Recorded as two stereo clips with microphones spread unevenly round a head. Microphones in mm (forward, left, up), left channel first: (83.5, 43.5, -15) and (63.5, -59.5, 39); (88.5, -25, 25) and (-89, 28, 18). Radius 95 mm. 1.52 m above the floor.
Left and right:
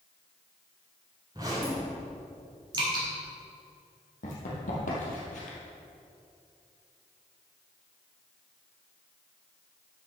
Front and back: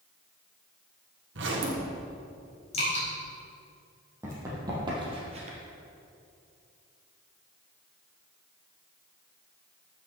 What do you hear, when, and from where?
1.4 s a zipper: 175° right, 1.5 m
2.7 s dripping: 70° right, 4 m
4.2 s running footsteps: 90° left, 3.5 m; by 5.6 s 125° left, 2 m